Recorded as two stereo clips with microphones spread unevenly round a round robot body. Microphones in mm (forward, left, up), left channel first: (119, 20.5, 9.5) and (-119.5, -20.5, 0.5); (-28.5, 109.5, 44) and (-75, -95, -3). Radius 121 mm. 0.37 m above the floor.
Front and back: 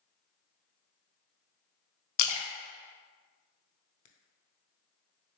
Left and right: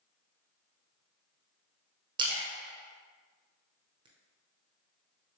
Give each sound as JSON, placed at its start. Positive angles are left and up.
{"t": 2.2, "sound": "a splash", "azimuth_deg": -25, "distance_m": 0.6}